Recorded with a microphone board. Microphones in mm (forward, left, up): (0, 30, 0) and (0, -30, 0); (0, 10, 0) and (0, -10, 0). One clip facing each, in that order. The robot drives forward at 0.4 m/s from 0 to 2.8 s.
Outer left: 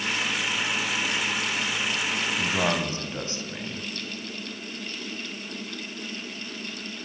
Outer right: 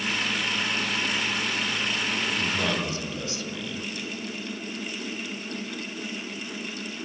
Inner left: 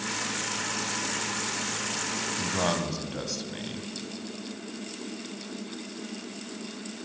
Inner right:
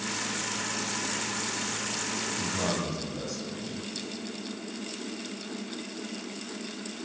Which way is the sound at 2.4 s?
35° left (ahead or behind).